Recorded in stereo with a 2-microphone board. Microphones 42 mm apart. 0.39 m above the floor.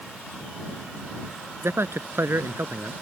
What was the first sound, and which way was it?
A man speaking, 75° right (ahead or behind).